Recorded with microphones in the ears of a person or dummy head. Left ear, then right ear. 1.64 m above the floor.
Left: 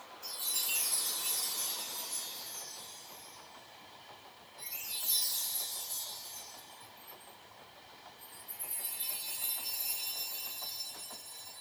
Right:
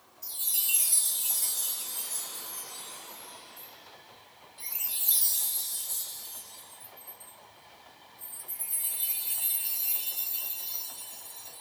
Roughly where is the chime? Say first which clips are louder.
Right 2 dB; centre.